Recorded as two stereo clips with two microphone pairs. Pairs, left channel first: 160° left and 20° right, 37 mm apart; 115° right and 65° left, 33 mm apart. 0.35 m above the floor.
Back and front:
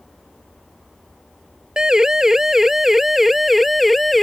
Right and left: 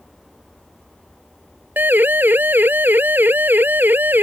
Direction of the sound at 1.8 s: 55° left.